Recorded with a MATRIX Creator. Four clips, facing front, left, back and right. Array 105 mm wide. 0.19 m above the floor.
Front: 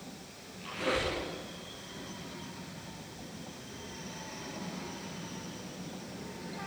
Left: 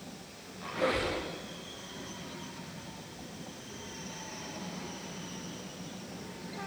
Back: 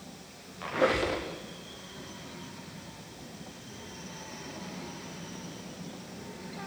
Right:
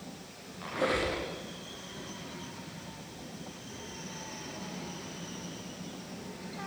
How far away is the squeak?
About 9.5 m.